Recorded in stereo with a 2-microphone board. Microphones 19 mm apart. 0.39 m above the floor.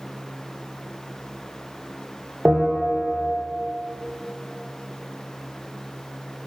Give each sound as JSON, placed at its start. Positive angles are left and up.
{"t": 2.5, "sound": "a bell", "side_deg": -85, "distance_m": 2.5}